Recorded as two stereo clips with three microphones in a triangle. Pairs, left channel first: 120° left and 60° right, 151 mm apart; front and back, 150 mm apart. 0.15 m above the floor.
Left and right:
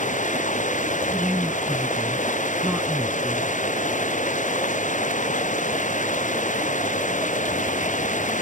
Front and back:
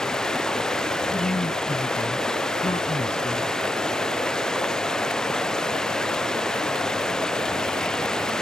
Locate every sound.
0.0 s running water: 85° left
1.1 s a woman speaking: 15° left